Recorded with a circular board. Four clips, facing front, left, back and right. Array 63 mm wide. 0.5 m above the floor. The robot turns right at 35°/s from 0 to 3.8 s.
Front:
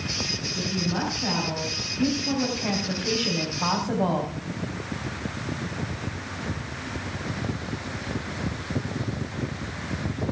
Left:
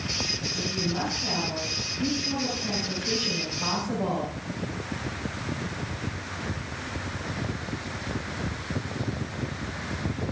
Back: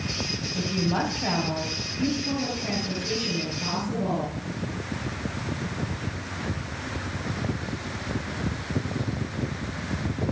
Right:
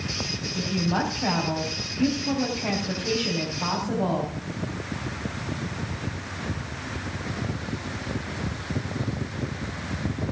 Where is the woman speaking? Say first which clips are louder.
Right 5 dB, back 2 dB; 130° right, 3.5 m; by 4.3 s 15° right, 3.5 m.